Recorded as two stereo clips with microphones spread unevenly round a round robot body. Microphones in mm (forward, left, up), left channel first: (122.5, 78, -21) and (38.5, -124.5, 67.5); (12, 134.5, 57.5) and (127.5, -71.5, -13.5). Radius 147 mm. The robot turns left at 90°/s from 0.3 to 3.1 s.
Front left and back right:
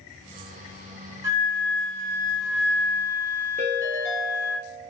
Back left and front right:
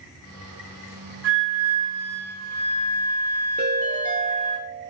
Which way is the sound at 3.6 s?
140° right.